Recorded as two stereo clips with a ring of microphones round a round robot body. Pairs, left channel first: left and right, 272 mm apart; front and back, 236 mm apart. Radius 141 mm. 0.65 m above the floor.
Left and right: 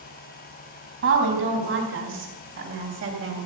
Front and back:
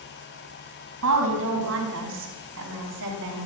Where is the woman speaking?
135° right, 4.5 m.